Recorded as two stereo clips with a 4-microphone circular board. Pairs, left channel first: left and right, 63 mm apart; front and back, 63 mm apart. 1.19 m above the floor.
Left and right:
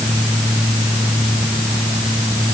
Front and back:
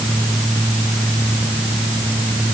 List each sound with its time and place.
Only background noise.